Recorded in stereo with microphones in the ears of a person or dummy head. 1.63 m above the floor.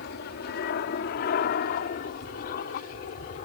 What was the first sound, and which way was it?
An aircraft, 55° left (ahead or behind).